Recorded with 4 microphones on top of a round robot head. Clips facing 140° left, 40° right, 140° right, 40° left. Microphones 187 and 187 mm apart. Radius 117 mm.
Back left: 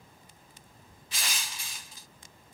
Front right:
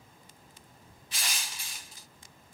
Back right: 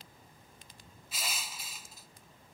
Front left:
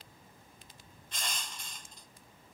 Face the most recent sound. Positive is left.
turn(degrees=135)